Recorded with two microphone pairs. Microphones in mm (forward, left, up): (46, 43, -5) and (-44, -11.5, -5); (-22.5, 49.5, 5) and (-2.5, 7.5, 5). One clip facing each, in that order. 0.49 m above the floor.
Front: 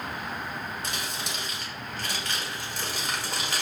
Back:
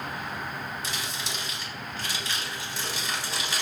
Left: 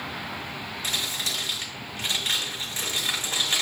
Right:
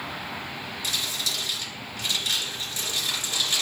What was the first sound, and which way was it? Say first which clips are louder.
Crumpling: front 1 dB, even; 60° left.